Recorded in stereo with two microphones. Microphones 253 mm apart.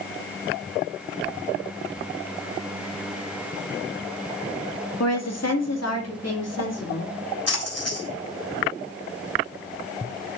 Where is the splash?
75° left (ahead or behind), 3.5 m.